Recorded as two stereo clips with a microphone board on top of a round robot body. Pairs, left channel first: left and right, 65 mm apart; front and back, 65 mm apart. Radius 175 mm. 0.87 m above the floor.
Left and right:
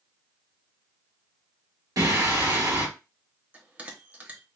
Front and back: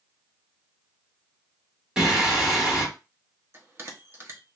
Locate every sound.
2.0 s singing: 100° right, 1.6 m
3.5 s a bell: 140° right, 1.2 m